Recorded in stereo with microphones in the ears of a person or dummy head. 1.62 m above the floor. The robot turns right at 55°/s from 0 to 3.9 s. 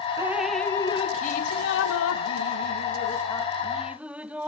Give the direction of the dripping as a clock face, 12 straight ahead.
1 o'clock.